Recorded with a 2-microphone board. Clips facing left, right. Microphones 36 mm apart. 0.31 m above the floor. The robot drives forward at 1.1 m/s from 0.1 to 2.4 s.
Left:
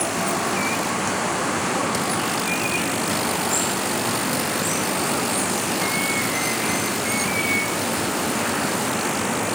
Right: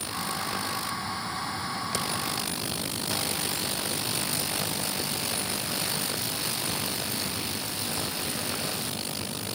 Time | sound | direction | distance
0.0 | running water | 85° left | ?